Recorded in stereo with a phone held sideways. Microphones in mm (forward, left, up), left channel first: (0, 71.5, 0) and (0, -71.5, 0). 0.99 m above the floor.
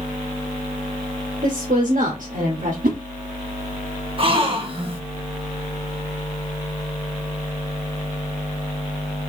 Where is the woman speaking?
65° right (ahead or behind), 1.2 m.